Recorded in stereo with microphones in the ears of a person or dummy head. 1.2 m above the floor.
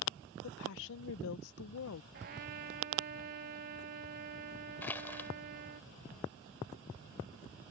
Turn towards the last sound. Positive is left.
turn(degrees=10)  # may be behind; listen again after turning